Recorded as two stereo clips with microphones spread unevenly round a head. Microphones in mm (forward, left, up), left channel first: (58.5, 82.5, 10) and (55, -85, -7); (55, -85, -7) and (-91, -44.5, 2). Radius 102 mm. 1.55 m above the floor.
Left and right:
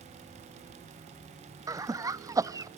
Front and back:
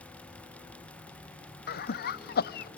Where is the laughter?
20° right, 0.6 m.